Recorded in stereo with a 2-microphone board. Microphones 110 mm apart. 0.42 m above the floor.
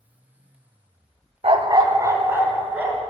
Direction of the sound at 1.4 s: 60° right (ahead or behind).